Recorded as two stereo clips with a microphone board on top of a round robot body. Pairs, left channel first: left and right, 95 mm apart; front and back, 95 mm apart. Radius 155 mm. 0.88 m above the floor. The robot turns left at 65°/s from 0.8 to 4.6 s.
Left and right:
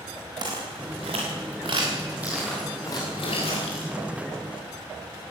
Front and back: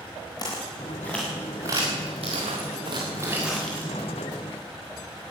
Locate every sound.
0.4 s footsteps: 50° right, 5.5 m; by 3.9 s 70° left, 5 m